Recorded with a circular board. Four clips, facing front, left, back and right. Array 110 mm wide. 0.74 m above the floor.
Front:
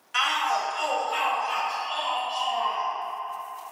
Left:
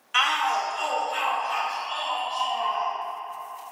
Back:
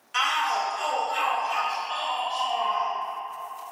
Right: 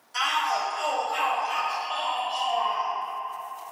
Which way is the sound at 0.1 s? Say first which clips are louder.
Left 2 dB, even; 85° left.